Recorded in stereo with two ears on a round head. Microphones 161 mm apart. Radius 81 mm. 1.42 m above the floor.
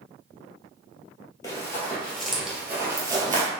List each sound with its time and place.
1.4 s running footsteps: 20° left (ahead or behind), 1.6 m; by 3.5 s 25° right (ahead or behind), 1.6 m